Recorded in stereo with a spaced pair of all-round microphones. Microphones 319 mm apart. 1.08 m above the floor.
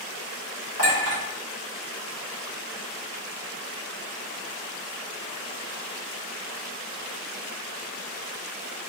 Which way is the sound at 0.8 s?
70° right (ahead or behind).